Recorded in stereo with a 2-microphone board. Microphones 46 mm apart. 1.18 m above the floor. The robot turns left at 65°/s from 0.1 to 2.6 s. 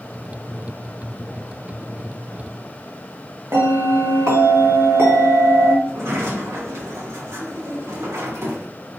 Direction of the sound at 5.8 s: 70° right (ahead or behind).